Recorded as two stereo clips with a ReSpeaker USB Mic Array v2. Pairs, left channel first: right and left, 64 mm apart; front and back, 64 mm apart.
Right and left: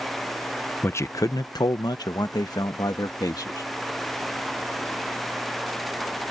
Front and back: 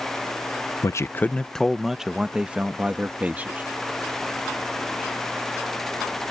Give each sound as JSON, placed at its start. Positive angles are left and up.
{"t": 0.8, "sound": "a man speaking", "azimuth_deg": -35}